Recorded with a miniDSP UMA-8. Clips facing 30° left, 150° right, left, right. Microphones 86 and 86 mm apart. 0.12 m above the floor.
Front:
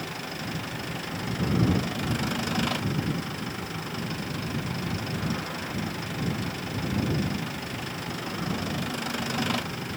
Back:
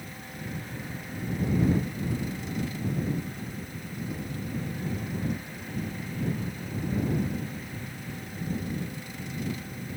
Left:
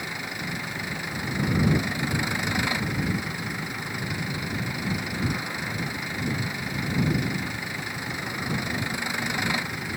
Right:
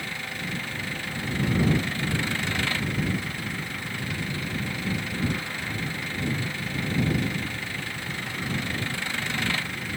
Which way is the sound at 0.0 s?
15° left.